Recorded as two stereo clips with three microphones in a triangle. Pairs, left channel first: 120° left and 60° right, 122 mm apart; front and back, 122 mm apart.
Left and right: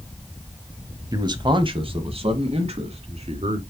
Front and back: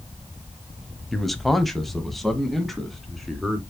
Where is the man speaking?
90° right, 1.0 m.